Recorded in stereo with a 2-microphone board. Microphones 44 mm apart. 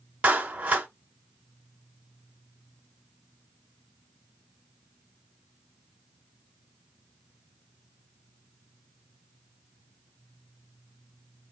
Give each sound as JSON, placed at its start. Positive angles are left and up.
{"t": 0.2, "sound": "a clap", "side_deg": -30, "distance_m": 1.2}